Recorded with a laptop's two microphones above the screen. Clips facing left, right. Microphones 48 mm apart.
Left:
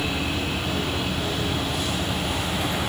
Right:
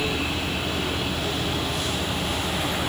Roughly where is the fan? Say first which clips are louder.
Even; centre.